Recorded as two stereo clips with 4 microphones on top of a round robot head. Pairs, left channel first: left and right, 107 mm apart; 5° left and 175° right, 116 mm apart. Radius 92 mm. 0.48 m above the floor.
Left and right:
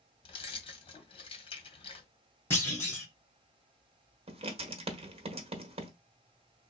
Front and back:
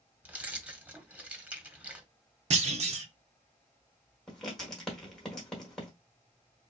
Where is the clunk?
165° left, 1.1 m.